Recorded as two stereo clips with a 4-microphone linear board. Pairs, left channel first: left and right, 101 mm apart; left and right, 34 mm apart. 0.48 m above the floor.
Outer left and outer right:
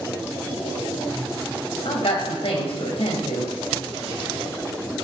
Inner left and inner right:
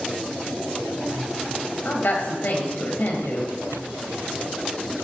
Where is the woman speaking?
70° left (ahead or behind), 2.5 m.